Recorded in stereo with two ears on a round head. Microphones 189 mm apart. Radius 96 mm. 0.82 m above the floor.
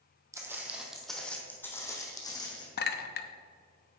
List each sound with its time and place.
0.3 s footsteps: 15° right (ahead or behind), 1.8 m; by 2.7 s 20° left (ahead or behind), 3 m
2.8 s a clink: 50° left (ahead or behind), 0.8 m